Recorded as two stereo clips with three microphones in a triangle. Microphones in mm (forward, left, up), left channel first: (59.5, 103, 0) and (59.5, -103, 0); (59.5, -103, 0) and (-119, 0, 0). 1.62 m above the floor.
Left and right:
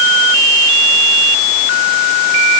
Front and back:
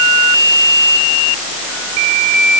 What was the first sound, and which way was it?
Only background noise.